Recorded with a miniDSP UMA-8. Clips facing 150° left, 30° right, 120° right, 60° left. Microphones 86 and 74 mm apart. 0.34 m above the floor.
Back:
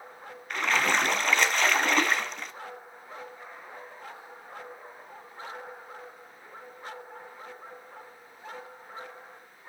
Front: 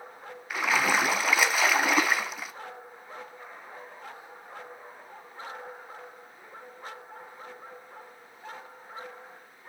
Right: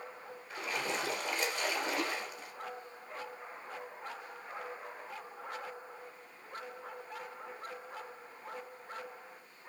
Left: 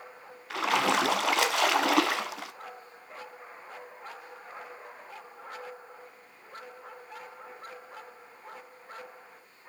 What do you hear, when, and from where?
0.5 s a splash: 55° left, 0.8 m